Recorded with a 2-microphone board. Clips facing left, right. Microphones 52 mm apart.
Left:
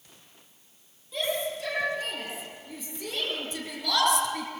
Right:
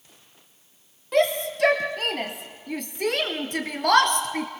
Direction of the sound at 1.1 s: 70° right (ahead or behind).